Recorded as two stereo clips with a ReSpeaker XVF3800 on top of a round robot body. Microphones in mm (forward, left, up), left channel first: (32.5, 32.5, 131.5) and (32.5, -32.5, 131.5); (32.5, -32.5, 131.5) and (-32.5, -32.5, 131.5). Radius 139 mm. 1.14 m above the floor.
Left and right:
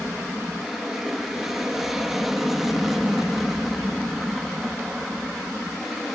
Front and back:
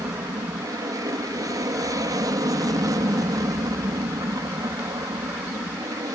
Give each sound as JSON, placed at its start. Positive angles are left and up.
{"t": 0.0, "sound": "an aircraft", "azimuth_deg": -175}